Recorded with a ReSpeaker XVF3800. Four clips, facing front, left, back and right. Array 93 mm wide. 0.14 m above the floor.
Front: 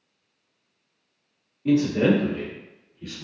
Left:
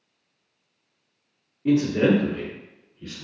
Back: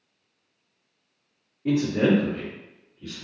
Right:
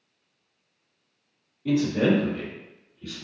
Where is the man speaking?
115° left, 1.8 m; by 3.2 s 60° left, 1.6 m.